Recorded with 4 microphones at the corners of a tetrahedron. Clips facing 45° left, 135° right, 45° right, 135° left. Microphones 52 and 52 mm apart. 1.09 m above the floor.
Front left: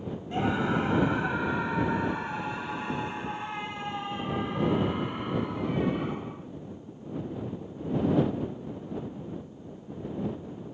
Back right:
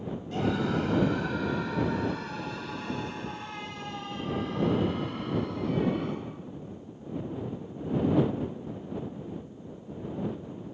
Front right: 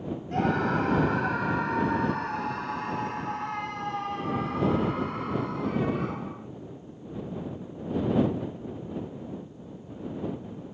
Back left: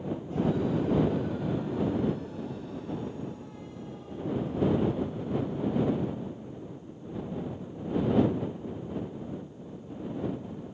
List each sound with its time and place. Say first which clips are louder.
0.3 s a scream: front left 1 dB, front right 3 dB; 25° right; by 6.5 s 30° right